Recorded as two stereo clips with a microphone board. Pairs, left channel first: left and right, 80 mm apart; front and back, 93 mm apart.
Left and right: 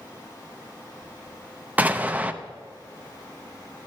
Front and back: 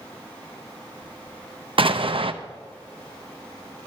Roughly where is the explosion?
Behind.